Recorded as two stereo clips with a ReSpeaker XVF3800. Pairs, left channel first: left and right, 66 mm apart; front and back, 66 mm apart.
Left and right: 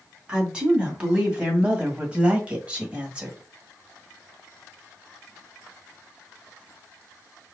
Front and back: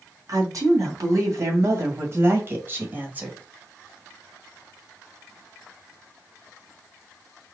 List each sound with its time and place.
0.3 s a woman speaking: 165° right, 2.5 m; by 3.4 s 135° right, 1.3 m